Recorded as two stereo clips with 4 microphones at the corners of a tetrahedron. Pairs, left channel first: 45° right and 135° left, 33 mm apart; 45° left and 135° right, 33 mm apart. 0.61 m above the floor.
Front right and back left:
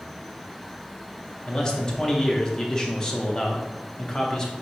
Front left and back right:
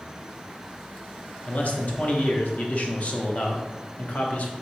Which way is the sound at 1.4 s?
20° left.